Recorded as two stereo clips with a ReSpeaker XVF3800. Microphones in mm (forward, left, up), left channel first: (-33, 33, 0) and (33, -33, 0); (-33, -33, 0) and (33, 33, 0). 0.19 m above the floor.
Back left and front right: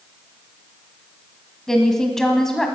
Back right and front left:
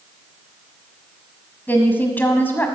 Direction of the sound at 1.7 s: 150° right.